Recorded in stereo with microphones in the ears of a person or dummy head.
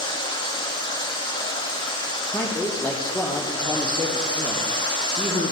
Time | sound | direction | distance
0.0 | running water | 20° left (ahead or behind) | 2.5 m
2.3 | a man speaking | 10° left (ahead or behind) | 3 m